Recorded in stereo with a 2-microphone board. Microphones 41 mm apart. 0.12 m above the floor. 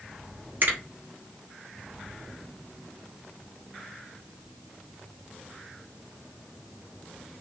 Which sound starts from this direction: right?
A finger snap, at 0.6 s.